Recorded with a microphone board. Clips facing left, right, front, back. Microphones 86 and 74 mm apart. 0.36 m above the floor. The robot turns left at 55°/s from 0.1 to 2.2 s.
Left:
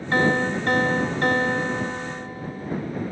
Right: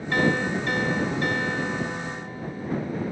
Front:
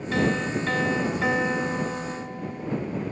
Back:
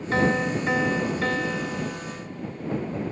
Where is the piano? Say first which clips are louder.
Left 2 dB, back 2 dB; 140° left; by 2.7 s 25° left.